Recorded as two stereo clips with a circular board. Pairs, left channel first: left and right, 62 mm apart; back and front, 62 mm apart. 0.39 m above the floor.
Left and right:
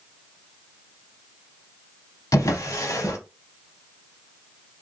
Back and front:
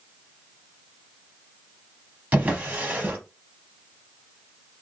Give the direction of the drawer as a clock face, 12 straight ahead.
10 o'clock.